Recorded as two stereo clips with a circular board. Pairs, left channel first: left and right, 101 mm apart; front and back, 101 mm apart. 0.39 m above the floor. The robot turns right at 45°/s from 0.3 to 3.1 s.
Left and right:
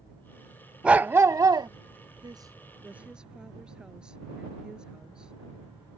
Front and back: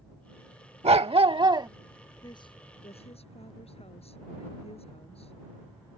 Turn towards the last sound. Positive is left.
turn(degrees=-5)